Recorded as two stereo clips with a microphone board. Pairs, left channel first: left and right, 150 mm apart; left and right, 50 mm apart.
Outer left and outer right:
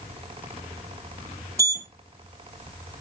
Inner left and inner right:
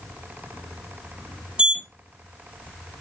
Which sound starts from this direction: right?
A sliding door, at 1.6 s.